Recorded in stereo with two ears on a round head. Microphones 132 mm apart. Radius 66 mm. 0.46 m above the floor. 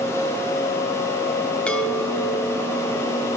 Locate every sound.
1.7 s a chime: 10° left (ahead or behind), 2 m